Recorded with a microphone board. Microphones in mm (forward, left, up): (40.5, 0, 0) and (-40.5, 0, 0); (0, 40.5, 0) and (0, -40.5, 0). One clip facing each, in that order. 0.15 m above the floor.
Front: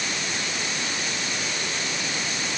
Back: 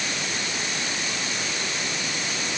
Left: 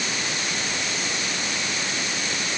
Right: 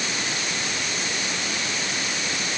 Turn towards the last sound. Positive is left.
No sound to turn to.